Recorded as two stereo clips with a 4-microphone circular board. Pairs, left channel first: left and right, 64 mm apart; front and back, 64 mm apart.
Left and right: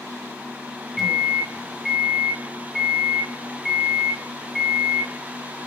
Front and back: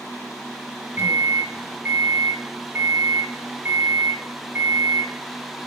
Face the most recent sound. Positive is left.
turn(degrees=-175)